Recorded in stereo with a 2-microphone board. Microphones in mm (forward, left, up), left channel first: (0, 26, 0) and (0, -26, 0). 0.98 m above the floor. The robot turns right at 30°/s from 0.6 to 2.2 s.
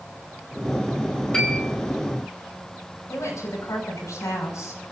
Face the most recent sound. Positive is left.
turn(degrees=85)